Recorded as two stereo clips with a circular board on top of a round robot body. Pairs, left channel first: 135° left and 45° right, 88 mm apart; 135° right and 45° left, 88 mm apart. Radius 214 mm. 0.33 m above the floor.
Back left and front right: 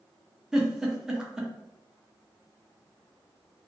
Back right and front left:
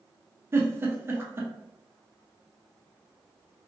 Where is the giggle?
30° left, 1.0 m.